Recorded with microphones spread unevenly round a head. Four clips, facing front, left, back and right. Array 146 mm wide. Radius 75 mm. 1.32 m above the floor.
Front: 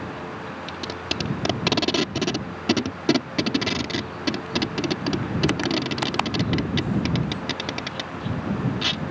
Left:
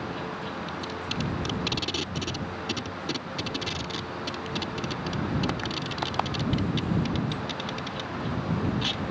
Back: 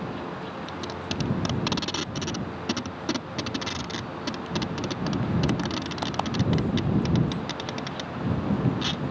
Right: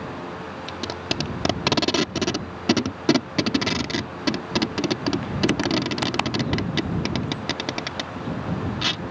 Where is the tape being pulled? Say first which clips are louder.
Right 4 dB, front 2 dB; 55° right.